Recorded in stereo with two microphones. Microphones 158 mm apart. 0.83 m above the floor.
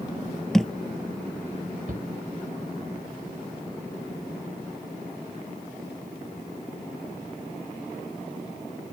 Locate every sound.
0.5 s a thud: centre (ahead or behind)
1.9 s a shout: 65° right (ahead or behind)